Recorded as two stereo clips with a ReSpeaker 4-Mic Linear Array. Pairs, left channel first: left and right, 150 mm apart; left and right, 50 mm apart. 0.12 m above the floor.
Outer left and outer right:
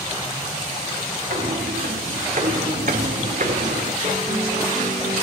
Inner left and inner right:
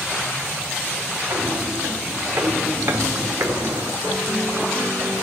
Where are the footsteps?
70° right (ahead or behind), 4 m; by 3.9 s 55° right (ahead or behind), 2.5 m.